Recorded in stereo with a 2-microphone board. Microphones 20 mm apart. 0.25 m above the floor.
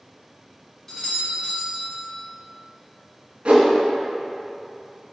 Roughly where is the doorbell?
Centre.